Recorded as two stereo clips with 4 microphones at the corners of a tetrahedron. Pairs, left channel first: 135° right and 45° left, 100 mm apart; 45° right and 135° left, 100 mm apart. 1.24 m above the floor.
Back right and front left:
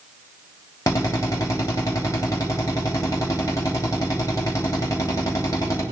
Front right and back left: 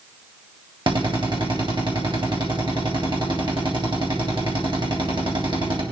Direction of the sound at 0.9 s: 170° left.